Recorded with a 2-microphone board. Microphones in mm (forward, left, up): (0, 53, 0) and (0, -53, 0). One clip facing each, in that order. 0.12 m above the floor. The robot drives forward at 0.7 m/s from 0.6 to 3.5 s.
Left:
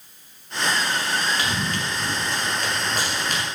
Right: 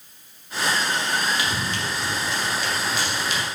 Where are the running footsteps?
50° left (ahead or behind), 4.5 m.